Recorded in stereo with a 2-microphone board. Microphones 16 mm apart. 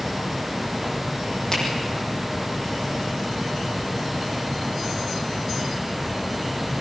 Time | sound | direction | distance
1.5 | a finger snap | 30° left (ahead or behind) | 7.5 m